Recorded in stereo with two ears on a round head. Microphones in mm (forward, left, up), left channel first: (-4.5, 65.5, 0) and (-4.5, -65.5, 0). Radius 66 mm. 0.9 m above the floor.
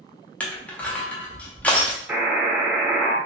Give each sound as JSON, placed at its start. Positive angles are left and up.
{"t": 0.4, "sound": "crushing", "side_deg": 10, "distance_m": 0.5}
{"t": 2.1, "sound": "a buzzer", "side_deg": -10, "distance_m": 0.8}